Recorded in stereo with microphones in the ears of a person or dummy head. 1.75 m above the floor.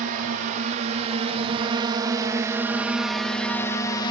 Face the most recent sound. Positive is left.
turn(degrees=20)  # may be behind; listen again after turning